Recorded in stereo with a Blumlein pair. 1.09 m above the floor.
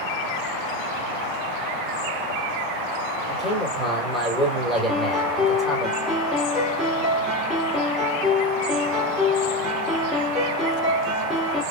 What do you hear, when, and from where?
3.3 s a man speaking: straight ahead, 3 m
4.9 s a piano: 5° left, 3 m